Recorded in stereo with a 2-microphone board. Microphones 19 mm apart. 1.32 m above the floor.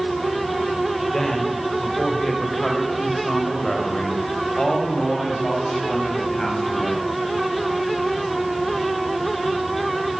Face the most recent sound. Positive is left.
turn(degrees=40)  # may be behind; listen again after turning